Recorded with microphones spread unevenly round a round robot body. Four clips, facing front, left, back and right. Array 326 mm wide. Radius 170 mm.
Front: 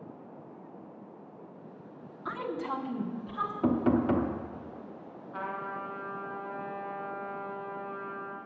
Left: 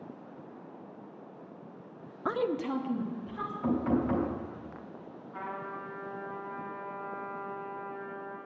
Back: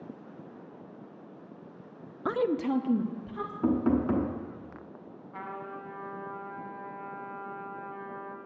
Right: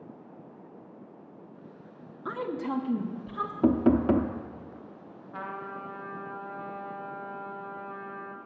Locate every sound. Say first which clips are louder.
2.2 s a woman speaking: left 2 dB, back 7 dB; 145° left, 0.5 m; by 3.5 s 150° right, 1.9 m
3.6 s knocking: right 6 dB, even; 100° right, 0.9 m
5.3 s a trumpet: right 1 dB, front 3 dB; 95° right, 1.5 m